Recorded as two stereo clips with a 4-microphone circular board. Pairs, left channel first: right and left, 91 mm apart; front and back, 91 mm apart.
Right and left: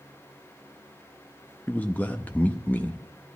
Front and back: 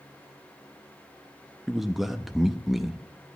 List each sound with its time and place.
1.7 s a man speaking: 100° right, 0.7 m